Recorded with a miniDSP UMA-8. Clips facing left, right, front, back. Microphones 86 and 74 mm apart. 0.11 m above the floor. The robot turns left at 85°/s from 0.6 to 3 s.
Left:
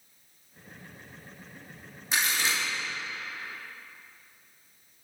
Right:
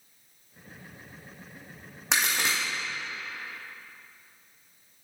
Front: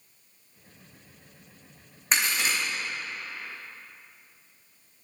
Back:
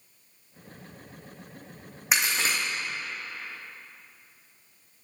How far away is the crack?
About 2.5 m.